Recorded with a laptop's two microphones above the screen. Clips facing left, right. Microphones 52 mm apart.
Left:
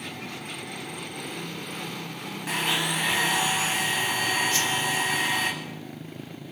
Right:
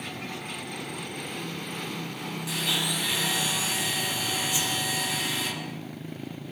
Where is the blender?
45° left (ahead or behind), 7.5 m.